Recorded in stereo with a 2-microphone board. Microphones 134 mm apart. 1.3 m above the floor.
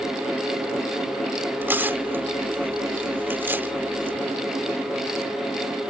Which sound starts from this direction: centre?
Tearing paper, at 1.6 s.